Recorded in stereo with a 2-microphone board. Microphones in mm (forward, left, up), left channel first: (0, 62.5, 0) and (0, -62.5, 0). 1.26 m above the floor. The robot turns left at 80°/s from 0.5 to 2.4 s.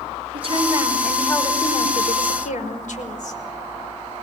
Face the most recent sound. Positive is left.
turn(degrees=75)